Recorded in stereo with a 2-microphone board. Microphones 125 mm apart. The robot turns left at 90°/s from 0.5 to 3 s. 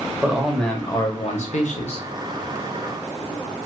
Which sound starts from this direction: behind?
A man speaking, at 0.2 s.